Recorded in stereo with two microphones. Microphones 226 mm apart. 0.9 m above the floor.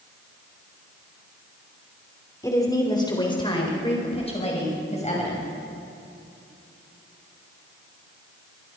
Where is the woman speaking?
15° left (ahead or behind), 3 m; by 5.5 s 30° left (ahead or behind), 6 m.